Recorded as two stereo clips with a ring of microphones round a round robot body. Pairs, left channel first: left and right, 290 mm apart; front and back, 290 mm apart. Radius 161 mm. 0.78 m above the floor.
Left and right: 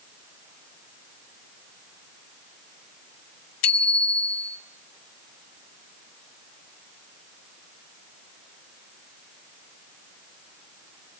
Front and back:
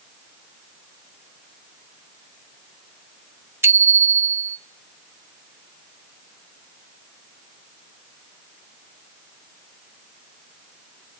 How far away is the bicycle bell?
About 2 m.